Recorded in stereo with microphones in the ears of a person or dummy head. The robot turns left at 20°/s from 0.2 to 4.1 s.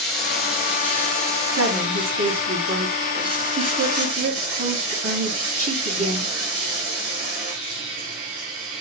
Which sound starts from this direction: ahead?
Running water, at 0.0 s.